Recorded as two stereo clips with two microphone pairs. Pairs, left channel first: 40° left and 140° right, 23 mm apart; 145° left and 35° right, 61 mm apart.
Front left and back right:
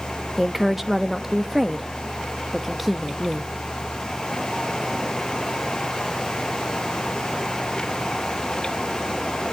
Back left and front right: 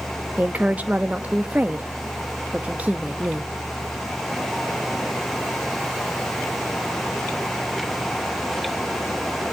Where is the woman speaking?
75° right, 0.6 m.